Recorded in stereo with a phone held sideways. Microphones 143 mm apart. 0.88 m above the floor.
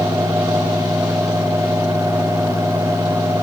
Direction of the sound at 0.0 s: 20° right (ahead or behind).